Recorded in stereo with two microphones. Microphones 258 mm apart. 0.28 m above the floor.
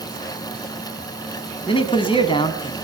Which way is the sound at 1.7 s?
20° left (ahead or behind).